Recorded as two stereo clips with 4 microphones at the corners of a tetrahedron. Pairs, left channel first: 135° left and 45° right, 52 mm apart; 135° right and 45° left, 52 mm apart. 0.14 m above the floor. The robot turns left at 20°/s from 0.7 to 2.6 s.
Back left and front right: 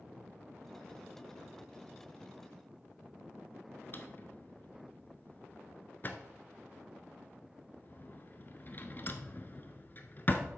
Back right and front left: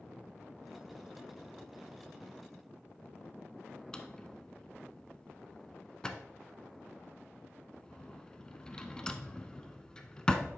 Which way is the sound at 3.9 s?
155° left.